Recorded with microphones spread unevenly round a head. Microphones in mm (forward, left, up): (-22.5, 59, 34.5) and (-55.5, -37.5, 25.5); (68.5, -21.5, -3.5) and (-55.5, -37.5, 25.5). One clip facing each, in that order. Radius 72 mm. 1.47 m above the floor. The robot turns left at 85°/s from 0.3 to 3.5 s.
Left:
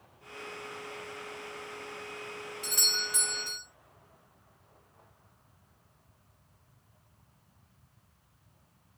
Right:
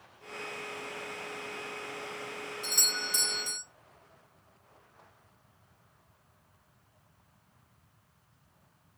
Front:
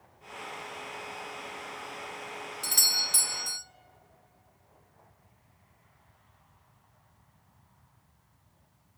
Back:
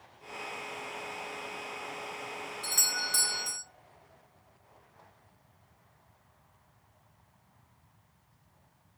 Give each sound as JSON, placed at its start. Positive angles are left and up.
{"t": 2.6, "sound": "a doorbell", "azimuth_deg": -10, "distance_m": 1.3}